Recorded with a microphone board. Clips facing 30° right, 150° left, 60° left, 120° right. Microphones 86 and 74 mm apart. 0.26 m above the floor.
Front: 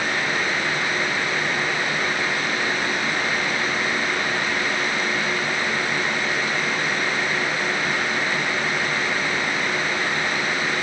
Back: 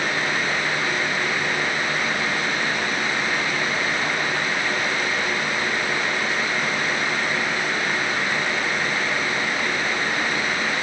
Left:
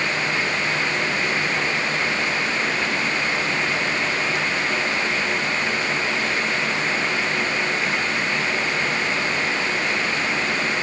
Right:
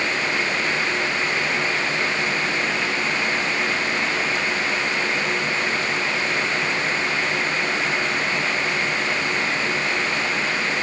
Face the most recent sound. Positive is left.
No sound to turn to.